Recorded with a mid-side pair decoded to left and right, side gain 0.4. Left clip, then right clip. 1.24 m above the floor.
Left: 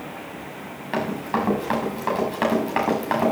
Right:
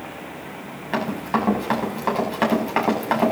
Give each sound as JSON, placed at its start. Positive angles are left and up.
{"t": 0.9, "sound": "running footsteps", "azimuth_deg": -10, "distance_m": 7.5}